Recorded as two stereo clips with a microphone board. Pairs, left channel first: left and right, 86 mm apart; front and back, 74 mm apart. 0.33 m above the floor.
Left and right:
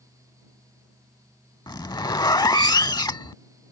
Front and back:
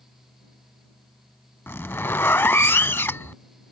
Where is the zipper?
55° left.